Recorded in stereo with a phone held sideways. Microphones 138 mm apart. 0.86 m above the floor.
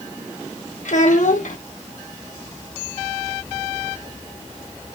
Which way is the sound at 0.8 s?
70° left (ahead or behind).